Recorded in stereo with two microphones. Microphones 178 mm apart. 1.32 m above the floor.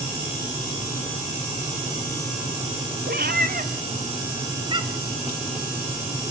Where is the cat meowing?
60° right (ahead or behind), 1.5 m; by 5.1 s 20° right (ahead or behind), 2.5 m.